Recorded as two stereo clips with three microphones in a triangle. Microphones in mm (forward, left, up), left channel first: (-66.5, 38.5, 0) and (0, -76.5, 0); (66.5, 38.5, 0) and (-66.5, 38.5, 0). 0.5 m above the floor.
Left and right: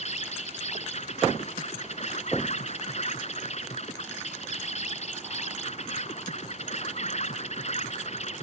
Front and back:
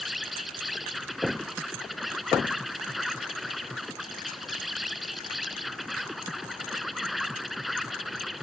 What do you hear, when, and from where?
0.0 s an insect: 90° left